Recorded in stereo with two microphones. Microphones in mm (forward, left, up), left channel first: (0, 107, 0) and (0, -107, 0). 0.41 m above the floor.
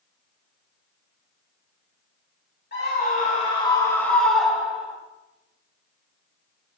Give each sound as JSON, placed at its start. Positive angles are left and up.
{"t": 2.7, "sound": "a scream", "side_deg": 50, "distance_m": 1.7}